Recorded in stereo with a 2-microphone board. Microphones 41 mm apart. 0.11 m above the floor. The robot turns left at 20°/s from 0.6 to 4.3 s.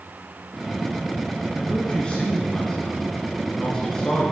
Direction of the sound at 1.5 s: 25° left (ahead or behind).